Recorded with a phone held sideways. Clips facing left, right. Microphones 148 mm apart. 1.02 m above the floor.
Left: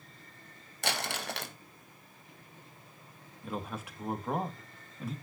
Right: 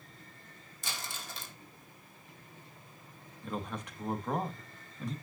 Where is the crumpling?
75° left (ahead or behind), 0.7 m.